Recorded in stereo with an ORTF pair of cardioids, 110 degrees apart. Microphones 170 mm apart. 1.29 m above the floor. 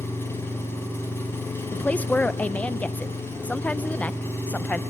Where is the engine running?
15° left, 3.5 m.